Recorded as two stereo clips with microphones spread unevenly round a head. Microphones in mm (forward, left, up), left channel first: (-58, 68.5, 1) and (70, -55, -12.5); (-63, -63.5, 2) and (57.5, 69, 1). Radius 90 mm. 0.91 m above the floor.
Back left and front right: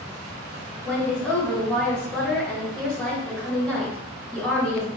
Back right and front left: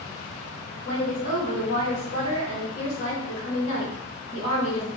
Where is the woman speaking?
140° right, 1.6 m.